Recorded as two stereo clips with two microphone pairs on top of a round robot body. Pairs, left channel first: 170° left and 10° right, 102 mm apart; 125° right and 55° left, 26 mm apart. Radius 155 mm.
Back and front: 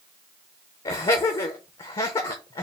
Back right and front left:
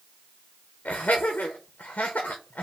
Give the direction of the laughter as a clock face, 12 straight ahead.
5 o'clock.